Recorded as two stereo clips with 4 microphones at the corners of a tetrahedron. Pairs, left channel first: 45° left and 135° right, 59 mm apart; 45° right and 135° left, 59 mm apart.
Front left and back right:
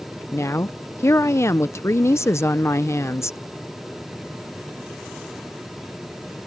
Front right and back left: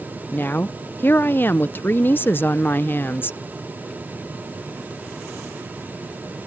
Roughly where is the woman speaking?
Ahead.